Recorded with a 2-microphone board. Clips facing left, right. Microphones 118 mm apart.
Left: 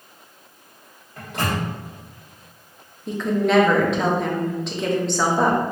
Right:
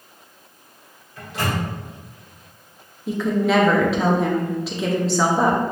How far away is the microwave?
About 1.3 m.